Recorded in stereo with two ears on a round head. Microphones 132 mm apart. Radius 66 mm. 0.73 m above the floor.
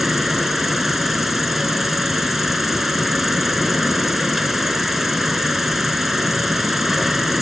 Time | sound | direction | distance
0.0 | an insect | centre (ahead or behind) | ?